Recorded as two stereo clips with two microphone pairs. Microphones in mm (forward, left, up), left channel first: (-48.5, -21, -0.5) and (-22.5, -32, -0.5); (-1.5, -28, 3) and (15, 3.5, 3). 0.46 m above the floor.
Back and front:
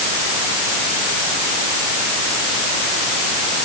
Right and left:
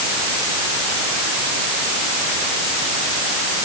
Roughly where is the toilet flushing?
No toilet flushing in this recording.